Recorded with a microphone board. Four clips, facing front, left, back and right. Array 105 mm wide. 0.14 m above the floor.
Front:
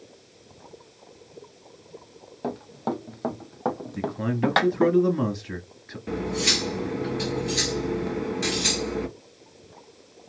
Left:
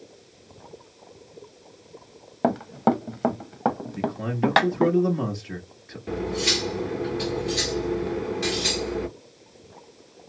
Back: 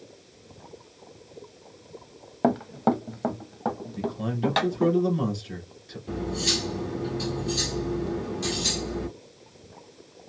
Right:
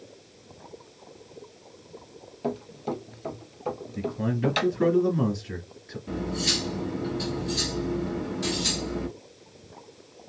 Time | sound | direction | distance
2.4 | running footsteps | 130° left | 0.7 m
4.0 | a man speaking | 5° left | 2 m
6.1 | cutlery clinking | 35° left | 1.5 m